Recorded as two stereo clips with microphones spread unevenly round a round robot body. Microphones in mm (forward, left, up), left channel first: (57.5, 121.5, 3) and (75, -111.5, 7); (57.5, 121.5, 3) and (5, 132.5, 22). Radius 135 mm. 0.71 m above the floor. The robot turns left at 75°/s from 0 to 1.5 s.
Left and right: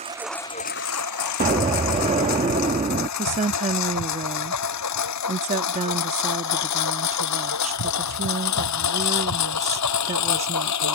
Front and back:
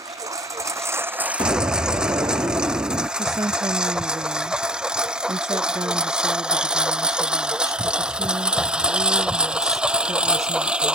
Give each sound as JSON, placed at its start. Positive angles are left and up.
{"t": 0.0, "sound": "a lawn mower", "azimuth_deg": -155}
{"t": 1.4, "sound": "an explosion", "azimuth_deg": -140}
{"t": 3.2, "sound": "a woman speaking", "azimuth_deg": -150}